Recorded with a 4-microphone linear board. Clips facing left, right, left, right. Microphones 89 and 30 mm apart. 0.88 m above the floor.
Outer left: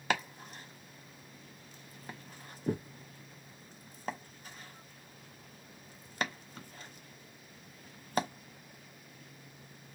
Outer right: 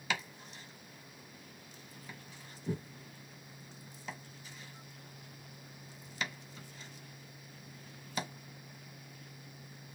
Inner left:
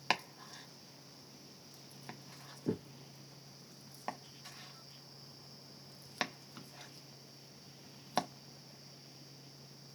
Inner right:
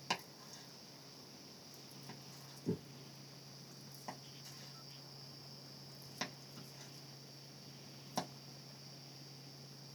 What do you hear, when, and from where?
0.1 s chopping: 50° left (ahead or behind), 1.0 m